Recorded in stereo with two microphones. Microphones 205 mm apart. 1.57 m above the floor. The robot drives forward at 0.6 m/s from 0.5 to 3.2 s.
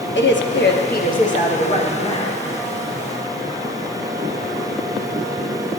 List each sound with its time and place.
0.1 s a woman speaking: 60° left (ahead or behind), 0.6 m; by 2.4 s 25° left (ahead or behind), 1.5 m